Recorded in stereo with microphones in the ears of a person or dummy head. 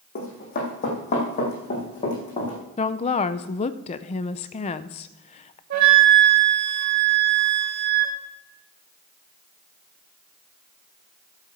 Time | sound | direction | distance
0.1 | running footsteps | 45° left (ahead or behind) | 4 m
2.8 | a woman speaking | 30° left (ahead or behind) | 0.5 m
5.7 | a flute | 50° right (ahead or behind) | 2.5 m